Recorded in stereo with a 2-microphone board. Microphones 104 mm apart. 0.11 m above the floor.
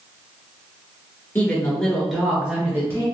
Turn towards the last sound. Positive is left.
turn(degrees=-25)  # may be behind; listen again after turning